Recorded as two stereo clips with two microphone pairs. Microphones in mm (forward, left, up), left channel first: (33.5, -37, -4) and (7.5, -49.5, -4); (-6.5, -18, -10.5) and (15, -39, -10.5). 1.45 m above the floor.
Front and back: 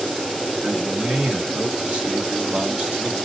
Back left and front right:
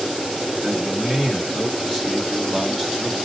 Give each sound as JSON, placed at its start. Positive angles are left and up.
{"t": 0.6, "sound": "a man speaking", "azimuth_deg": -130, "distance_m": 1.4}